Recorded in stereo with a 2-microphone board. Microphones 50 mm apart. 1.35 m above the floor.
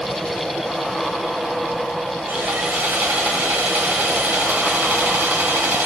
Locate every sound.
2.3 s sawing: 40° right (ahead or behind), 1.0 m